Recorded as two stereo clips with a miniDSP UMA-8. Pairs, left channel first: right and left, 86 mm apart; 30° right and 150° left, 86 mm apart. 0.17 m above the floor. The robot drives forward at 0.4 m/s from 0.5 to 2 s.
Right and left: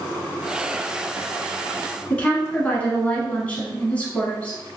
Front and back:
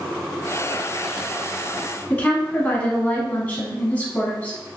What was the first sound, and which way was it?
A woman speaking, 55° right.